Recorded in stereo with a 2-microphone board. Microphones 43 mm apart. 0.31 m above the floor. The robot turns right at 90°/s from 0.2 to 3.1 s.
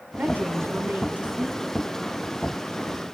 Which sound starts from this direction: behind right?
A woman speaking, at 0.2 s.